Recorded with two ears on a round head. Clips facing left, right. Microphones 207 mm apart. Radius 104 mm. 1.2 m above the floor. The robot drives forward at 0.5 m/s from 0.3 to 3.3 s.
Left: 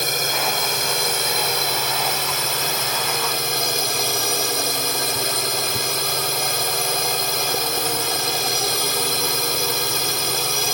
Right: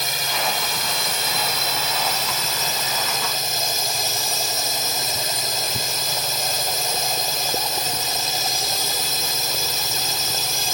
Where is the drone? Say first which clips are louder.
Left 3 dB; 45° left (ahead or behind); by 10.7 s 50° left (ahead or behind).